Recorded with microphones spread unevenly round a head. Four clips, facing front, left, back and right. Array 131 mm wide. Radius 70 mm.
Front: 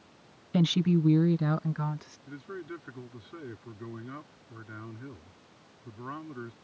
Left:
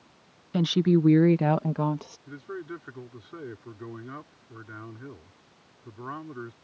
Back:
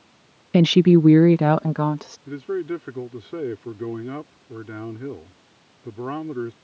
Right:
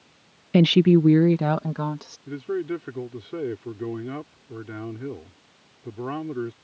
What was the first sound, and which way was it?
A woman speaking, 135° right.